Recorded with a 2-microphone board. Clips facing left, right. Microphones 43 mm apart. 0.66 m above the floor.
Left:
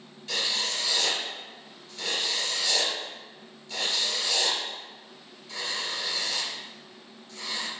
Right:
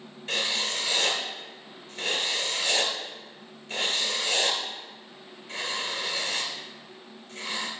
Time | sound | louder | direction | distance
0.3 | writing | right 1 dB | 35° right (ahead or behind) | 3 m